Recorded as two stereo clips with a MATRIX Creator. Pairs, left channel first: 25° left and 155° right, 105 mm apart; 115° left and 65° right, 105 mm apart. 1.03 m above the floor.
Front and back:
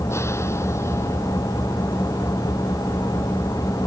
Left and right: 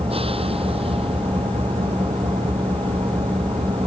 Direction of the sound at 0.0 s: 40° right.